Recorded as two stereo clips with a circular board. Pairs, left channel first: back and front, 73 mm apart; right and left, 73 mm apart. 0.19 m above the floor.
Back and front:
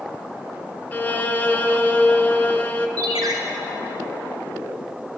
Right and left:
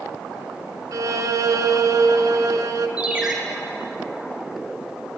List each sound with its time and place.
0.9 s a violin: 120° left, 0.7 m
3.0 s a ringtone: 15° left, 1.9 m